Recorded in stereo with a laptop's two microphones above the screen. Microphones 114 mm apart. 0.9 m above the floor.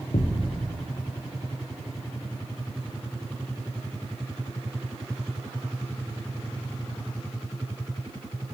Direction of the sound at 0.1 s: 75° left (ahead or behind).